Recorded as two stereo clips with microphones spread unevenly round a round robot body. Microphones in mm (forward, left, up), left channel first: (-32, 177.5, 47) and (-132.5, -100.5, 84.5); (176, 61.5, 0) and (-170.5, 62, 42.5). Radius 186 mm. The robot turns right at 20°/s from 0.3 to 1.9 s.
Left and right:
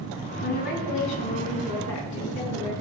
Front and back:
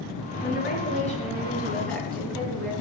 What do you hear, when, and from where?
0.4 s a woman speaking: 55° left, 4 m; by 2.7 s 85° left, 4 m